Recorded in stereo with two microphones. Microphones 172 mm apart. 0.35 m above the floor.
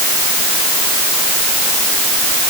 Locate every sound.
Only background noise.